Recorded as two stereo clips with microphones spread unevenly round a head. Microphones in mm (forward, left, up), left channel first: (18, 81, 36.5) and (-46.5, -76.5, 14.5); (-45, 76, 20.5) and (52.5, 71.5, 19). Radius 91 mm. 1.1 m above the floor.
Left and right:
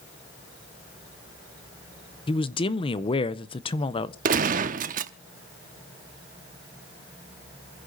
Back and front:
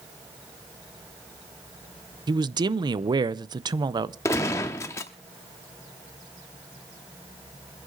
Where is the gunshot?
130° right, 0.6 m.